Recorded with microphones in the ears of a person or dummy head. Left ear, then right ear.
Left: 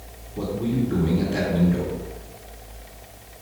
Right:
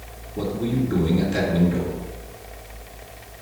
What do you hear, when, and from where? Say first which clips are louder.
0.3 s a man speaking: right 1 dB; 10° right (ahead or behind), 2.5 m